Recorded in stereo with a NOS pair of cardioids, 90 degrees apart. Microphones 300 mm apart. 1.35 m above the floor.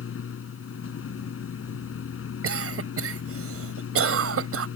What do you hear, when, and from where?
0.0 s a machine running: 45° left
2.4 s a cough: 50° right